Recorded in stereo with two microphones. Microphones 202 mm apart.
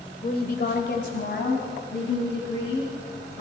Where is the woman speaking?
40° left (ahead or behind), 1.1 m; by 3.4 s 65° left (ahead or behind), 4.5 m.